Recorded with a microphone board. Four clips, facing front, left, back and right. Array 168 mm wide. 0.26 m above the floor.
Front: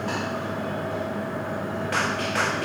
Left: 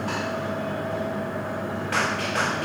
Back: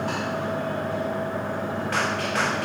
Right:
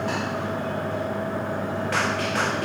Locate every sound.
Only background noise.